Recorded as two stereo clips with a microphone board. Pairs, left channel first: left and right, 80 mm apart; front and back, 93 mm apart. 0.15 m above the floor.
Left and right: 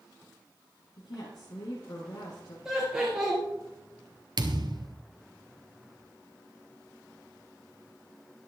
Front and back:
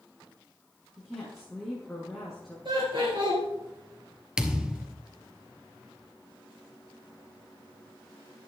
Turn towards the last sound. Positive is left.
turn(degrees=-100)